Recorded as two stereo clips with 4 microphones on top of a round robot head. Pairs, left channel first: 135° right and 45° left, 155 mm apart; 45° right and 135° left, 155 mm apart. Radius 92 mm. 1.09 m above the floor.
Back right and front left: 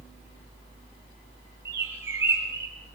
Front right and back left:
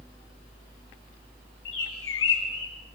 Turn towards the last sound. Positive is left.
turn(degrees=-35)